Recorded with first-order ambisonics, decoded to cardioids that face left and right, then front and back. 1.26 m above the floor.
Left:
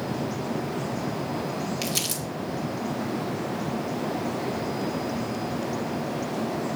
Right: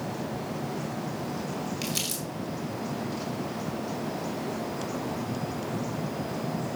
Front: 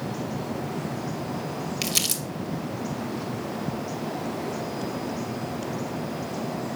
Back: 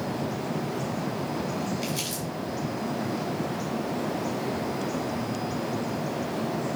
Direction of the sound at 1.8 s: 15° left.